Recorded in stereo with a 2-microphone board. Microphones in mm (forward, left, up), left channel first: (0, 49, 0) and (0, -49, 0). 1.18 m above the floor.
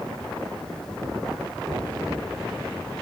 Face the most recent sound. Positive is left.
turn(degrees=5)  # may be behind; listen again after turning